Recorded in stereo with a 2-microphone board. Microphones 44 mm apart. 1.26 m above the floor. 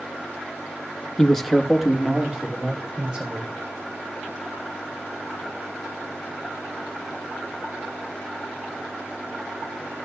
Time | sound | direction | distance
1.2 | a man speaking | 15° left (ahead or behind) | 1.0 m